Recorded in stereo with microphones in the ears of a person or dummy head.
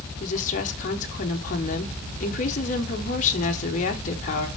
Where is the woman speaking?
40° left (ahead or behind), 1.0 m.